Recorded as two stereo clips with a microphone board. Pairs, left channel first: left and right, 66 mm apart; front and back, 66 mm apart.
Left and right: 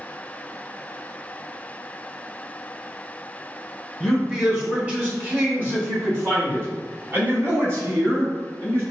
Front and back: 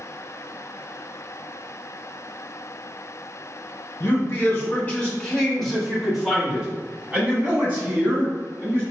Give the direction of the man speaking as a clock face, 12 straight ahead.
1 o'clock.